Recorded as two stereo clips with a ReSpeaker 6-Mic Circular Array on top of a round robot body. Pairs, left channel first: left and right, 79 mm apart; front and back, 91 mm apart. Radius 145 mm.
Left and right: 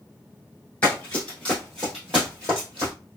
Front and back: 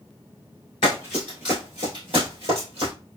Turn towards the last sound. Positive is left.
turn(degrees=-165)